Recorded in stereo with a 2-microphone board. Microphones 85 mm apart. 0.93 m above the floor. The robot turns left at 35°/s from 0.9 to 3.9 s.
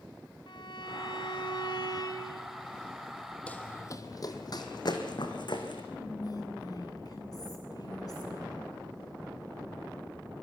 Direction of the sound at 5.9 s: 50° left (ahead or behind).